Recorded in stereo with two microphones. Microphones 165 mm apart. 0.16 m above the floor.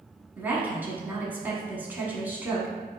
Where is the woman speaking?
10° right (ahead or behind), 1.0 m.